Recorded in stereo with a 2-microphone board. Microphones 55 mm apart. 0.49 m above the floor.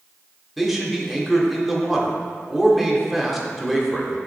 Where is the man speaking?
Centre (ahead or behind), 0.9 m.